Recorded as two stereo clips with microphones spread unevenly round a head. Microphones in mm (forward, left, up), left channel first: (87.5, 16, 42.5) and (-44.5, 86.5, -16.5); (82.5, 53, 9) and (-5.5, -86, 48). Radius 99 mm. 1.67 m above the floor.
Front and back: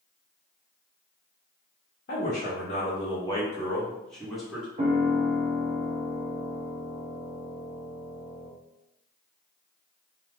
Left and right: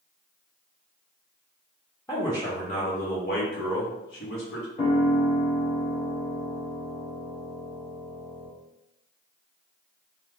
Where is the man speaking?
20° right, 0.8 m; by 4.7 s 60° left, 1.4 m.